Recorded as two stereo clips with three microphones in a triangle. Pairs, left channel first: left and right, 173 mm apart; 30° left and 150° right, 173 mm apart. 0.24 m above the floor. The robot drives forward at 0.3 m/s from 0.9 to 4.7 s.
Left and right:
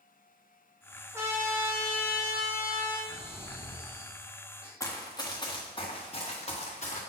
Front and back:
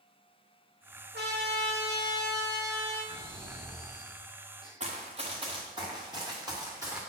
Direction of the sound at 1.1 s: 165° right.